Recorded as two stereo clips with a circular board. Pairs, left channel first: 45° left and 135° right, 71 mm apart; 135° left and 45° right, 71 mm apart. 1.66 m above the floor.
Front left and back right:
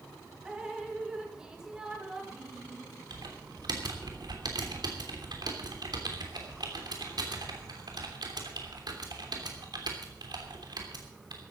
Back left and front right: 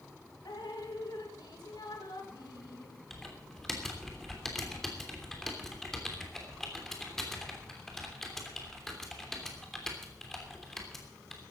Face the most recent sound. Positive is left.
turn(degrees=-140)